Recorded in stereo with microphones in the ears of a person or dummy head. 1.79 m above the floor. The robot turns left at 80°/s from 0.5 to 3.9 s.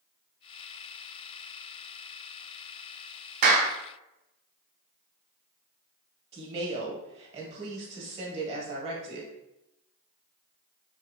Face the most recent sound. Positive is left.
turn(degrees=-35)  # may be behind; listen again after turning